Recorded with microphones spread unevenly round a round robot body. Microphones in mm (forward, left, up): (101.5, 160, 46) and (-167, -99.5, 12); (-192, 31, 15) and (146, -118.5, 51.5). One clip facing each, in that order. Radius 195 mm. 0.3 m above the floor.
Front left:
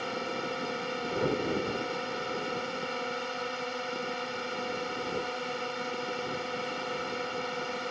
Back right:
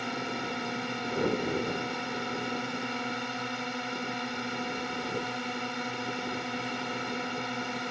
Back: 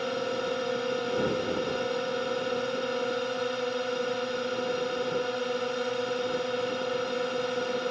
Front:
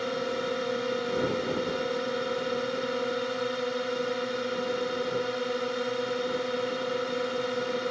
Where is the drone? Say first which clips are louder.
Even, even; 110° right.